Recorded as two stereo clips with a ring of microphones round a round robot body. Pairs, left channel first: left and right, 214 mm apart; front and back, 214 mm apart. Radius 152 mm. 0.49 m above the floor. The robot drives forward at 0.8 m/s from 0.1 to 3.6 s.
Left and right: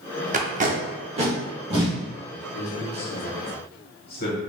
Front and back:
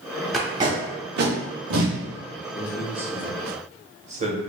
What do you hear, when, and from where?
0.3 s tape being pulled: 90° right, 0.7 m; by 2.0 s 165° right, 1.5 m
2.5 s a man speaking: 80° left, 1.1 m; by 4.4 s 130° left, 1.3 m